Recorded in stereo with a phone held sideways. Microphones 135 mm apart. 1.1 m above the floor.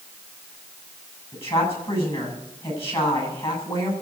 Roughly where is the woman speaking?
Left.